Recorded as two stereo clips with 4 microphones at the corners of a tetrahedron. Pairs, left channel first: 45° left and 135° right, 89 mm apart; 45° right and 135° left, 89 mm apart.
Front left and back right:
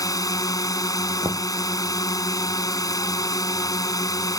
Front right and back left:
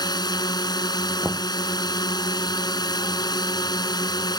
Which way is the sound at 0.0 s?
5° right.